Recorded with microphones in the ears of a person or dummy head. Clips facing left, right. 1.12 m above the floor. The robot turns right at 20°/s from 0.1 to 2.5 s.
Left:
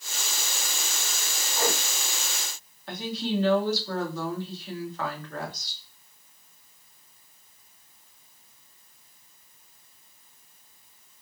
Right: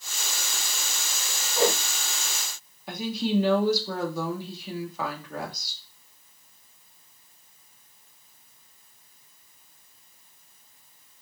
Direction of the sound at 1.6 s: 30° right (ahead or behind).